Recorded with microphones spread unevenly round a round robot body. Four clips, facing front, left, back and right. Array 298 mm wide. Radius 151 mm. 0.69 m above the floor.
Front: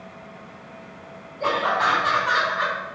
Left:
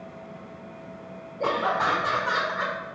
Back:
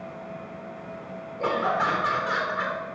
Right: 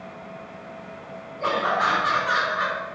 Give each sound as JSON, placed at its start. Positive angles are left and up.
{"t": 1.4, "sound": "laughter", "azimuth_deg": 125, "distance_m": 2.0}